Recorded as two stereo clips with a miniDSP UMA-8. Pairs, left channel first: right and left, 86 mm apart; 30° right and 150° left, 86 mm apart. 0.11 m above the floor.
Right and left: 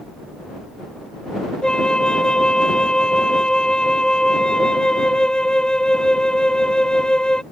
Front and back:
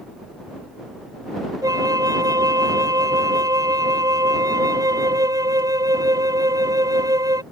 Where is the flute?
170° right.